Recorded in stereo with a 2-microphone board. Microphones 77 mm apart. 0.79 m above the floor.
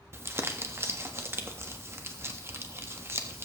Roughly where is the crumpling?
Right.